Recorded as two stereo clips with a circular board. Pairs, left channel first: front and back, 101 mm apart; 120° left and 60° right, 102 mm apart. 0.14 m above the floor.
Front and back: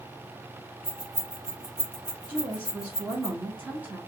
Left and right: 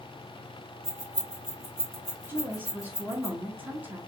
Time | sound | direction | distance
0.8 | keys jangling | 115° right | 1.6 m
2.3 | a woman speaking | 115° right | 1.4 m